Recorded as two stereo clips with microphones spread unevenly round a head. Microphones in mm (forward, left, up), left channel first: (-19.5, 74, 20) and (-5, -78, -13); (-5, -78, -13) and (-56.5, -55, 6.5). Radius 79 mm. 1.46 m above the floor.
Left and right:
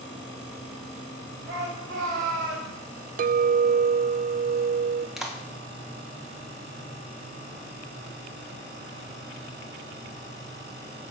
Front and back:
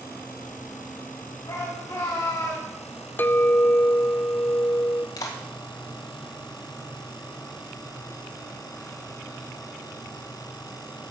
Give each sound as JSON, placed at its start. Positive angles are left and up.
{"t": 1.5, "sound": "a shout", "azimuth_deg": -45, "distance_m": 7.0}
{"t": 3.2, "sound": "a clink", "azimuth_deg": -85, "distance_m": 0.5}
{"t": 5.2, "sound": "a clap", "azimuth_deg": 5, "distance_m": 1.4}